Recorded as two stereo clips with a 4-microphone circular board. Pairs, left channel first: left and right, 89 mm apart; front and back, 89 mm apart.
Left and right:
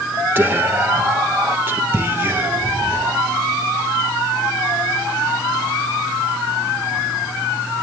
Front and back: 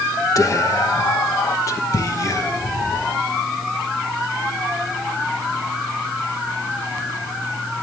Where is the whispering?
35° right, 1.0 m.